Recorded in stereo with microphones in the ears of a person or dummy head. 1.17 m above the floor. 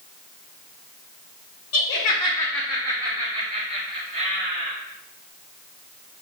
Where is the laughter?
60° left (ahead or behind), 0.6 m; by 4.7 s 35° right (ahead or behind), 2.0 m.